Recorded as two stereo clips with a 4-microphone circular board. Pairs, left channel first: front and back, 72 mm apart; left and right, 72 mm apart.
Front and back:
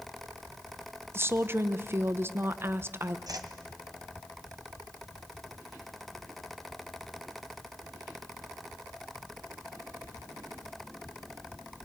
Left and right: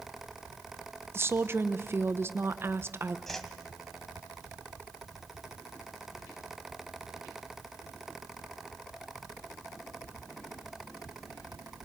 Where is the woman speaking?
135° right, 1.0 m.